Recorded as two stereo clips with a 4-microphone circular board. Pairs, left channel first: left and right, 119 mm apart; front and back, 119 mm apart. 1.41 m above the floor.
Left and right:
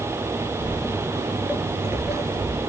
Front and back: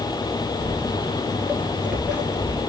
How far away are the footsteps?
About 1.4 m.